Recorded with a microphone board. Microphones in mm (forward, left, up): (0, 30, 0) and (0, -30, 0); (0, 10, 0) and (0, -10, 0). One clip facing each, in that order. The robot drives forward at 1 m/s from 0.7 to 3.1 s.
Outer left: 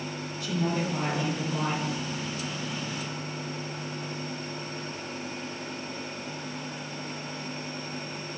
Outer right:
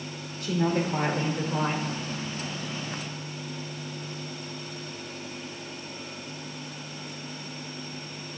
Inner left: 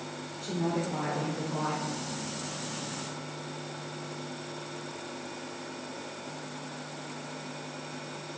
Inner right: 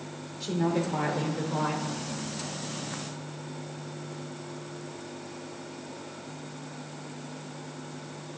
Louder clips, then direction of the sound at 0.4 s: Outer right 3 dB, inner right 3 dB; 50° right (ahead or behind).